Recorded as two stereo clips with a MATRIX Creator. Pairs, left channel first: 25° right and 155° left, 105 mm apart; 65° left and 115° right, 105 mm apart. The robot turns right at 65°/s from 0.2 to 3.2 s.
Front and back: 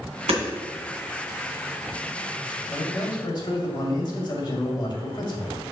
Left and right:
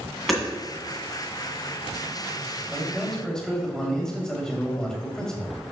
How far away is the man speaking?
About 1.9 m.